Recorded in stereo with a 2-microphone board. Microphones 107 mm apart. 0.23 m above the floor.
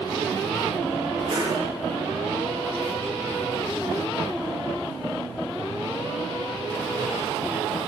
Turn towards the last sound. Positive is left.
turn(degrees=-70)  # may be behind; listen again after turning